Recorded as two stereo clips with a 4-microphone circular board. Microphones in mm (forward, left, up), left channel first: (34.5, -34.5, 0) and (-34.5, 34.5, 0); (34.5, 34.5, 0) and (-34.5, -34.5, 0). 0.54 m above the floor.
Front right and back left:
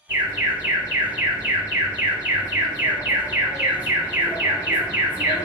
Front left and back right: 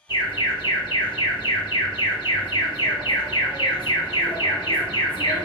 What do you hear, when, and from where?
0.1 s an alarm: 75° left, 1.9 m